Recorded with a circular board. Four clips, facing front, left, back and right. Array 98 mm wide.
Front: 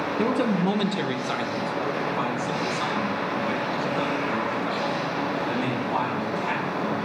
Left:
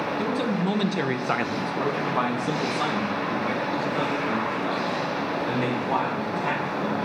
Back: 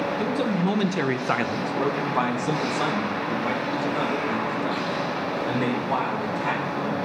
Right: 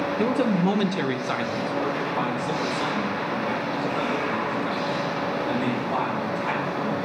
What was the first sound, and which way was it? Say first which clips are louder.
A man speaking: right 5 dB, front 4 dB; 50° right.